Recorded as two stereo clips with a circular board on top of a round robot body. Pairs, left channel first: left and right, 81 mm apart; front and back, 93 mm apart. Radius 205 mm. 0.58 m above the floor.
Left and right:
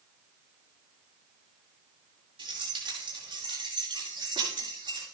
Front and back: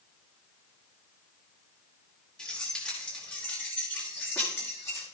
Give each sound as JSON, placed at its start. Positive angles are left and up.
{"t": 2.4, "sound": "keys jangling", "azimuth_deg": -80, "distance_m": 7.5}